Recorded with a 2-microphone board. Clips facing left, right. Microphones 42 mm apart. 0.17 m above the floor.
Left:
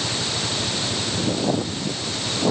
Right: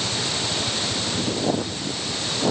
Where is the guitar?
No guitar in this recording.